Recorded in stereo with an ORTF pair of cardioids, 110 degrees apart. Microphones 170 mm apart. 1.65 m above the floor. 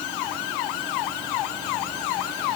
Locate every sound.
Only background noise.